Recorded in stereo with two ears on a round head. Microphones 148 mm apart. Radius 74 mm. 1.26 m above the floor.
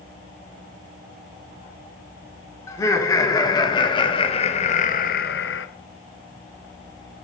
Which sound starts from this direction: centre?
Laughter, at 2.7 s.